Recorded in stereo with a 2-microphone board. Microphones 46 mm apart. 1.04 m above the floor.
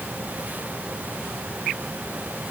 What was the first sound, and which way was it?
Only background noise.